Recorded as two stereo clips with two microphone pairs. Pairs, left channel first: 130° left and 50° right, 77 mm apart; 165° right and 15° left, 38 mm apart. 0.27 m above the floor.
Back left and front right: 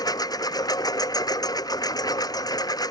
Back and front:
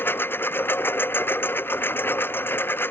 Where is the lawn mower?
165° left.